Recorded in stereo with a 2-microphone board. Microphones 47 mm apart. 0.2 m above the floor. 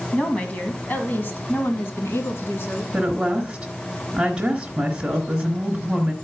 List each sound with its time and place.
0.1 s a woman speaking: 20° left (ahead or behind), 1.5 m; by 2.8 s 55° left (ahead or behind), 2.5 m
2.9 s a woman speaking: 15° right (ahead or behind), 1.6 m